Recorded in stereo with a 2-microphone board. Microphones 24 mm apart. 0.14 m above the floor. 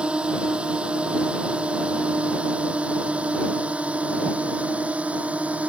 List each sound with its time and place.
0.0 s a drone: 45° right (ahead or behind); by 5.7 s 65° right (ahead or behind)